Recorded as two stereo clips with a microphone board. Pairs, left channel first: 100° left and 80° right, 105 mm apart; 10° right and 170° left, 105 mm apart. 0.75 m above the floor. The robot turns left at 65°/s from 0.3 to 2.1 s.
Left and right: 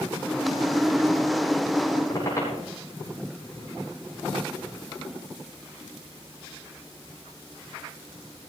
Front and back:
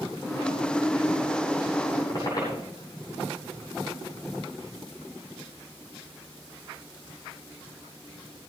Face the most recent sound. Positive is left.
turn(degrees=40)